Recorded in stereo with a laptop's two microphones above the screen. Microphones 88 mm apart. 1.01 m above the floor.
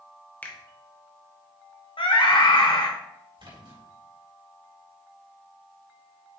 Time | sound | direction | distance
0.4 | a finger snap | 20° left (ahead or behind) | 0.8 m
2.0 | a scream | 70° left (ahead or behind) | 1.3 m
3.4 | a splash | 80° right | 3.5 m